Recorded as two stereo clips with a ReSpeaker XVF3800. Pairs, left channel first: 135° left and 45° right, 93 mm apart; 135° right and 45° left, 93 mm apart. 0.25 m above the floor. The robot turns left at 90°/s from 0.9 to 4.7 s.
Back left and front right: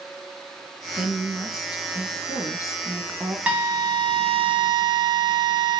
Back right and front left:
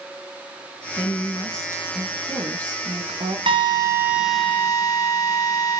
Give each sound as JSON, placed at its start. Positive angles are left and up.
{"t": 1.0, "sound": "a woman speaking", "azimuth_deg": -120, "distance_m": 2.0}
{"t": 3.5, "sound": "a drill", "azimuth_deg": 30, "distance_m": 4.0}